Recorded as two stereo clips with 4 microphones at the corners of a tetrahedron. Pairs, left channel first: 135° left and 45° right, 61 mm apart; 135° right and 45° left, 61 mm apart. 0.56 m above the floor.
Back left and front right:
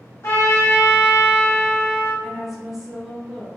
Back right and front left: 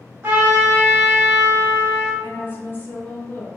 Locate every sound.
0.2 s a trumpet: 95° left, 0.9 m
2.2 s a woman speaking: 130° right, 0.8 m